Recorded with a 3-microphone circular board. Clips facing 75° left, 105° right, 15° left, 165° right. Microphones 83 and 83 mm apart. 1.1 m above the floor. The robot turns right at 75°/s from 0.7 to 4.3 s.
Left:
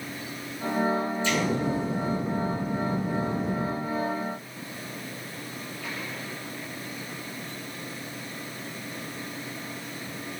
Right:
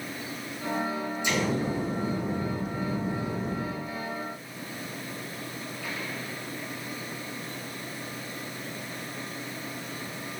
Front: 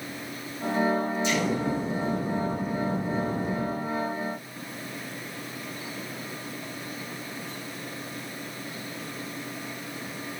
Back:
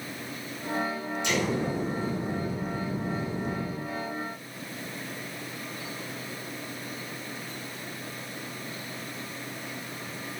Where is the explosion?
175° right, 3 m; by 3.6 s straight ahead, 3 m.